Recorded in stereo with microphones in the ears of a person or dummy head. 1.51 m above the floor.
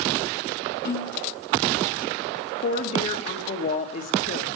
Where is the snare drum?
65° left (ahead or behind), 8.5 m.